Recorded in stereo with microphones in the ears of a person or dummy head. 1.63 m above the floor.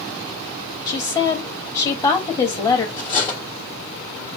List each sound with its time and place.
0.9 s a woman speaking: 20° left (ahead or behind), 1.1 m
3.0 s cutlery clinking: 30° left (ahead or behind), 1.3 m